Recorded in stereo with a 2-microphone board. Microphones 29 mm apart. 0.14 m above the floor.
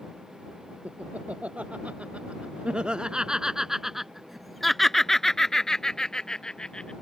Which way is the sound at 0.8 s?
55° right (ahead or behind).